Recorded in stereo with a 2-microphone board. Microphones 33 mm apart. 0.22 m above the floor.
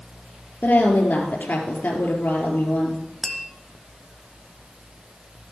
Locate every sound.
0.6 s a woman speaking: 65° left (ahead or behind), 3.5 m
3.2 s tapping: 5° right (ahead or behind), 1.5 m